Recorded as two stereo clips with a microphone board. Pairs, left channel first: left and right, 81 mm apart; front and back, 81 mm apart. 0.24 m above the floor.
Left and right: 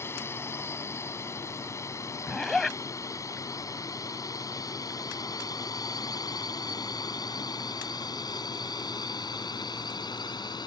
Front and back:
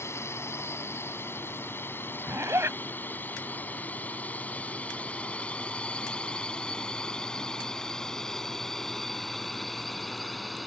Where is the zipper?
170° left.